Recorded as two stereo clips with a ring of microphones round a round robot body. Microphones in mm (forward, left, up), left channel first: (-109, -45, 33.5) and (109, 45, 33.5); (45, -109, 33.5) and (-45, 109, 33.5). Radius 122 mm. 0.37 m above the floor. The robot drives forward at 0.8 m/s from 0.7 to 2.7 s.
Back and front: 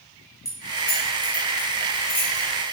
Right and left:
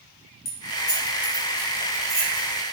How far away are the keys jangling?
About 1.0 m.